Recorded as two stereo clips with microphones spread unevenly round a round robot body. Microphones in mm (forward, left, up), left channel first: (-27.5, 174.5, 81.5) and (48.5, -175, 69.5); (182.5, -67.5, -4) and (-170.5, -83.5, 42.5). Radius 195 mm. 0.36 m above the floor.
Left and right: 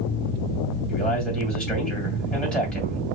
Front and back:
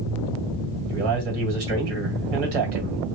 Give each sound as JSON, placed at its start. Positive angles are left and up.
{"t": 0.9, "sound": "a man speaking", "azimuth_deg": -170, "distance_m": 2.5}